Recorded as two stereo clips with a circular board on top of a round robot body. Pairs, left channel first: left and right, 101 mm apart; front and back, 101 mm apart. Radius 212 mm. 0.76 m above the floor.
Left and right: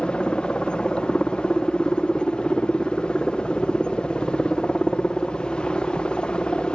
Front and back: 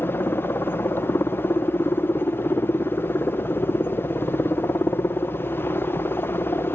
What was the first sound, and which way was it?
A helicopter, 25° left.